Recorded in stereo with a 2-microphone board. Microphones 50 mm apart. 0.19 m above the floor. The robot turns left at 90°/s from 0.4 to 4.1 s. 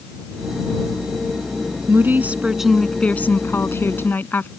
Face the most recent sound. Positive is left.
turn(degrees=55)